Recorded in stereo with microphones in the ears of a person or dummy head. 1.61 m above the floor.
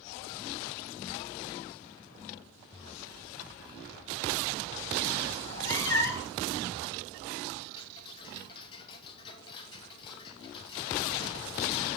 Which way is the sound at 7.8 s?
30° left (ahead or behind).